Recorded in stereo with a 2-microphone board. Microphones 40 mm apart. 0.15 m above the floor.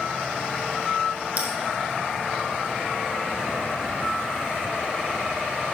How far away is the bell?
About 2.5 m.